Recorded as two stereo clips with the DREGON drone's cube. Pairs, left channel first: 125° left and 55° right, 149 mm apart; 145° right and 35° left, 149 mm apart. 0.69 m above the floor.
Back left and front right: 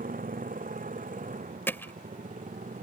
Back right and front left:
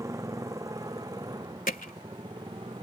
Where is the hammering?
160° right.